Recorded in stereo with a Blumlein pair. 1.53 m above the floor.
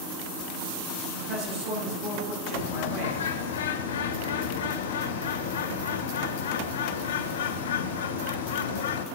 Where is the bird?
60° left, 0.6 m.